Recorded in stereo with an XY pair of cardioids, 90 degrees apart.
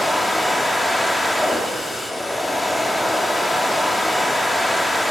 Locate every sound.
0.0 s a machine running: 15° left, 1.7 m